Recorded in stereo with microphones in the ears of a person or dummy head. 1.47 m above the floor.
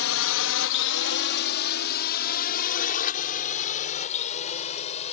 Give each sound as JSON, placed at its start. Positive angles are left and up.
{"t": 0.0, "sound": "a drone", "side_deg": 65}